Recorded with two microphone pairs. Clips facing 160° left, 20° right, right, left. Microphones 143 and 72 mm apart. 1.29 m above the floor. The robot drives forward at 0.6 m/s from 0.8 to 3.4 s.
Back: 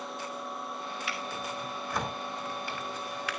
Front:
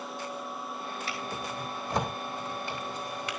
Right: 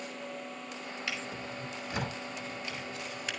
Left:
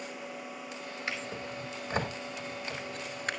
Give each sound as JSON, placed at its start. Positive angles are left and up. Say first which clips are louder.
{"t": 1.1, "sound": "a drawer", "louder": "front 1 dB, left 2 dB", "azimuth_deg": 40, "distance_m": 4.0}